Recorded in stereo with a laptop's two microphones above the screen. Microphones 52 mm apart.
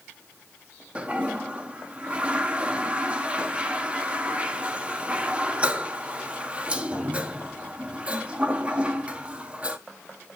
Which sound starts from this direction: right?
A toilet flushing, at 0.9 s.